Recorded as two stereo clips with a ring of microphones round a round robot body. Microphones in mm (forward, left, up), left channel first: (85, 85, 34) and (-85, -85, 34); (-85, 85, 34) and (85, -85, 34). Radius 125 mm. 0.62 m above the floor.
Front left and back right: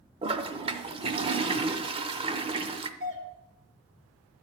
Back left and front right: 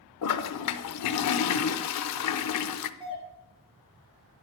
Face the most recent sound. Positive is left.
turn(degrees=-110)